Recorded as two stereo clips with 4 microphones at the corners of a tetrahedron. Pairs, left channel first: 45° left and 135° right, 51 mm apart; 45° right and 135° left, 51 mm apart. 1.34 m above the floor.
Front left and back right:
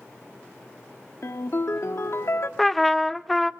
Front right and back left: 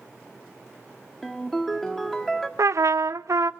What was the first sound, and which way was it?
A ringtone, 35° left.